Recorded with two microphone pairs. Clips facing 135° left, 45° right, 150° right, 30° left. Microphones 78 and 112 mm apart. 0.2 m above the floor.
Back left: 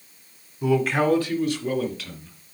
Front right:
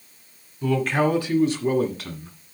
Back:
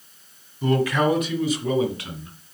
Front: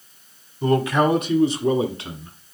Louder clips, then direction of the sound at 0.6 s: Back left 1 dB, front 2 dB; 70° left.